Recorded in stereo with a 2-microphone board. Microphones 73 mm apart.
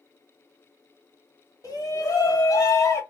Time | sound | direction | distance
1.6 | a shout | 50° left (ahead or behind) | 2.0 m